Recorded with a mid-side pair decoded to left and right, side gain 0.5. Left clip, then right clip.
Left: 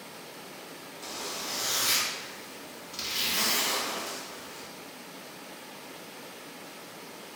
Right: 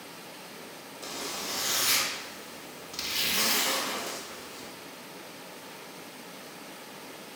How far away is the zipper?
About 0.6 m.